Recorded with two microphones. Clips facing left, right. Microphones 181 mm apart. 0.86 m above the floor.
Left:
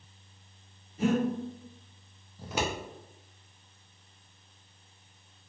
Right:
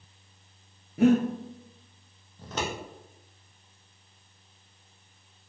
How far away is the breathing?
About 0.5 m.